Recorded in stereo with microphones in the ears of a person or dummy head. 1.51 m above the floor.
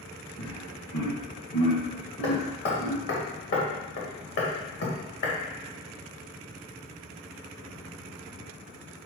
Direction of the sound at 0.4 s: 55° left (ahead or behind).